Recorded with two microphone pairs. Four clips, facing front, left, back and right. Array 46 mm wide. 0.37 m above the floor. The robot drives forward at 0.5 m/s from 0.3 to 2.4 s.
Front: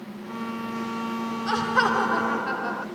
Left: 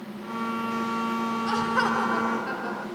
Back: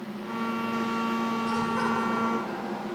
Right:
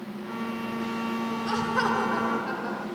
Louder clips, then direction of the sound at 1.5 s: Left 1 dB, front 9 dB; 5° left.